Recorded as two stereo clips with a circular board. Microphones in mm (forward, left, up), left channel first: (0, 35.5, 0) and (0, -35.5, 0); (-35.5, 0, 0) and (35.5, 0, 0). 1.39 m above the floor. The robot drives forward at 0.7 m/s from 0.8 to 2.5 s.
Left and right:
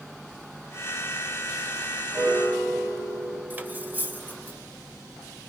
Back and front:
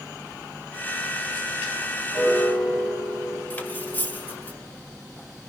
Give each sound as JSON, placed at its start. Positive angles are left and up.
{"t": 2.1, "sound": "a piano", "azimuth_deg": -140, "distance_m": 6.0}
{"t": 3.5, "sound": "cutlery clinking", "azimuth_deg": -135, "distance_m": 0.8}